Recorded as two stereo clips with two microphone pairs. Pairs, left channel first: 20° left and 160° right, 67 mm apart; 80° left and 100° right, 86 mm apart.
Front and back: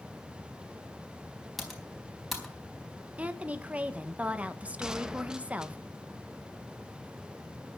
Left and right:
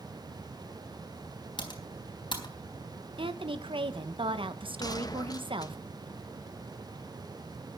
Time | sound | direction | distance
1.6 | typing on a keyboard | 110° left | 4 m
3.2 | a woman speaking | 95° right | 1.3 m
4.8 | a gunshot | 120° left | 1.1 m